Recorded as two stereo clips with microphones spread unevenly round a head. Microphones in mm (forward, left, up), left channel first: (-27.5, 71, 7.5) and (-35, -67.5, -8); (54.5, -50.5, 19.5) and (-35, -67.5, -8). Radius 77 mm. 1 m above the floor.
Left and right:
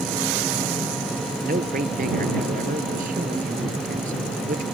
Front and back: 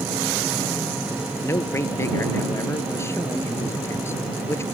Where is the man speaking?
50° right.